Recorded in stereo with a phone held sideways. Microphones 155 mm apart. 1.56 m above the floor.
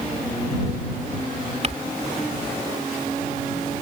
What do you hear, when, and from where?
1.6 s crumpling: 45° right (ahead or behind)